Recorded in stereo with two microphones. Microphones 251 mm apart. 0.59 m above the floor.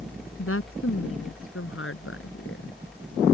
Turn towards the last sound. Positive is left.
turn(degrees=60)  # may be behind; listen again after turning